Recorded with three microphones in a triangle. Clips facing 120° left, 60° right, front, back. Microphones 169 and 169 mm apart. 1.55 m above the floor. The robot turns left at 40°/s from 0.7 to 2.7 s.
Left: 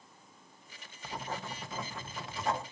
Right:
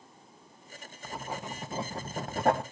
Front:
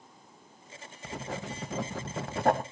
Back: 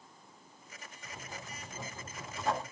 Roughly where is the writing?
Ahead left.